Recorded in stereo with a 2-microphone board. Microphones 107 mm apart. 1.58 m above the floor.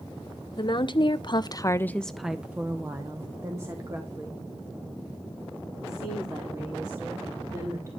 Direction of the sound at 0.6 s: 45° left (ahead or behind).